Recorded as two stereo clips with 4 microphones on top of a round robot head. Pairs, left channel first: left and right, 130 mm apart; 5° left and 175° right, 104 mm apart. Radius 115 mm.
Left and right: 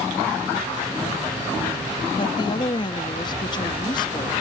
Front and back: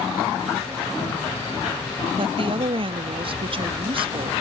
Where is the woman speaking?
150° left.